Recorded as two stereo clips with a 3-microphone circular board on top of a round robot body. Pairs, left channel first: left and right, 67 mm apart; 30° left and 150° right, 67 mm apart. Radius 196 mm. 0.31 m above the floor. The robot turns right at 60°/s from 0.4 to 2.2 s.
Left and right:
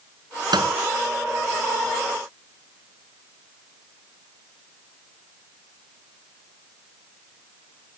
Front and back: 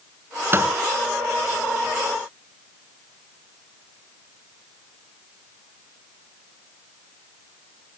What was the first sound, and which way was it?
A microwave, 95° right.